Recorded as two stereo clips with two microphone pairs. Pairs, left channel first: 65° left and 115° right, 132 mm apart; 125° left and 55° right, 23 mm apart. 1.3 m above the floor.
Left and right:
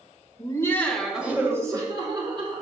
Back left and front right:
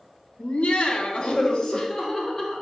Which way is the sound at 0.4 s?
120° left.